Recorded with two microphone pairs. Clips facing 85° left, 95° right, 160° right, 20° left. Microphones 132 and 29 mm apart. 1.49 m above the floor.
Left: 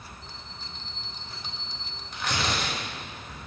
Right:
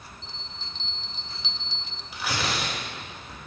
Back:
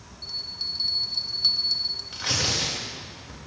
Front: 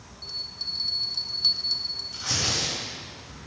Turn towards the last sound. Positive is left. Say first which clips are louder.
# even, back 1 dB
turn(degrees=-175)